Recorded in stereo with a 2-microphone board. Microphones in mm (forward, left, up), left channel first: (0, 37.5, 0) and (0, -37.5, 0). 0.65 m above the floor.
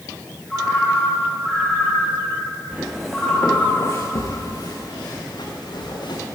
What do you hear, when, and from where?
0.5 s a ringtone: centre (ahead or behind), 5 m
2.7 s footsteps: 15° right (ahead or behind), 2 m; by 6.2 s 75° left (ahead or behind), 4.5 m